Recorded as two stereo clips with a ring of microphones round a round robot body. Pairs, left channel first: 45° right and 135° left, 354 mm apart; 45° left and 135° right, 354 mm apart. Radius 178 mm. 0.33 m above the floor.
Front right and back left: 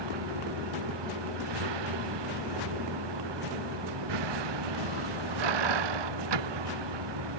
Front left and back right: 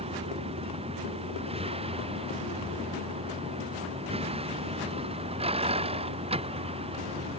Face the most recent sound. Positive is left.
turn(degrees=150)